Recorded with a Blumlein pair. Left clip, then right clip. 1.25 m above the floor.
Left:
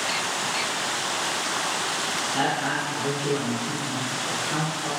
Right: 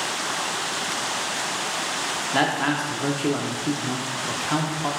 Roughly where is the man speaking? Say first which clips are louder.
Right 5 dB; ahead right.